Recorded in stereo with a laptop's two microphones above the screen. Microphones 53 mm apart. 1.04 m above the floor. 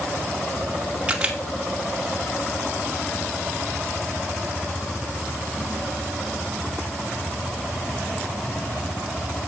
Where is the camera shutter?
20° right (ahead or behind), 2 m.